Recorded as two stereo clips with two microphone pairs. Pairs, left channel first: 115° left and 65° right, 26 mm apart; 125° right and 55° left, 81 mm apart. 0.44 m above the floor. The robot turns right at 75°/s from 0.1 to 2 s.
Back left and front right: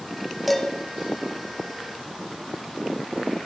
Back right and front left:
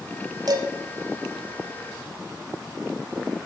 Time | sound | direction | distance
0.5 | dishes clattering | 30° left | 1.4 m